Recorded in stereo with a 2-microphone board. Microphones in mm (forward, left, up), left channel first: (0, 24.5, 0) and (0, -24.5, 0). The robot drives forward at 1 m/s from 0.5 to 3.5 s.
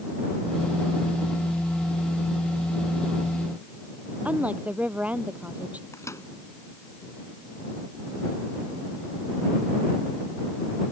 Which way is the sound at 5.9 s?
85° left.